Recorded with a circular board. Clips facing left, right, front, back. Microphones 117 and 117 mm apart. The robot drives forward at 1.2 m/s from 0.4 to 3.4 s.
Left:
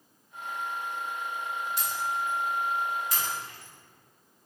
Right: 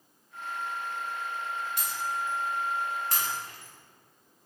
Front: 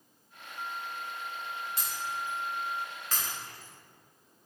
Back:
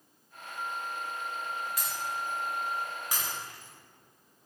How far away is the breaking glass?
About 2 m.